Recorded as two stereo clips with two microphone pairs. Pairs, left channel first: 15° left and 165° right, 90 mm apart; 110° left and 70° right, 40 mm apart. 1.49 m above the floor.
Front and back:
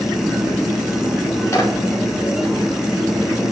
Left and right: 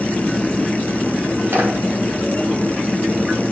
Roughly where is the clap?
Ahead right.